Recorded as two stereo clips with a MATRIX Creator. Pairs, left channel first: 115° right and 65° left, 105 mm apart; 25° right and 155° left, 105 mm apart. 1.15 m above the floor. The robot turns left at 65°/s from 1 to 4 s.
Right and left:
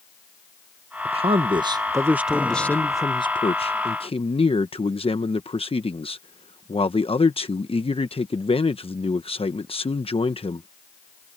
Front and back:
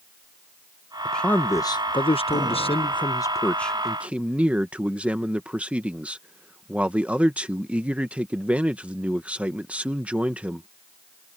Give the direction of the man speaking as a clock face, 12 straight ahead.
10 o'clock.